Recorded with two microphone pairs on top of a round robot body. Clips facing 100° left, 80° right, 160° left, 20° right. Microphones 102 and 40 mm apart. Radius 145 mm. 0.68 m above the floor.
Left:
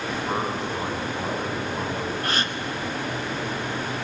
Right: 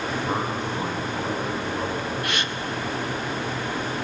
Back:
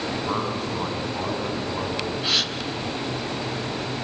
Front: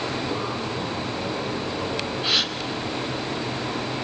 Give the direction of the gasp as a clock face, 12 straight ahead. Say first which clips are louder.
Left 1 dB, front 1 dB; 10 o'clock.